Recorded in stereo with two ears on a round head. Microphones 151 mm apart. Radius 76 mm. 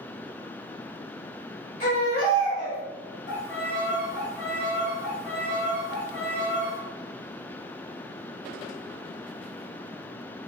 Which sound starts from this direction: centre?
A violin, at 3.3 s.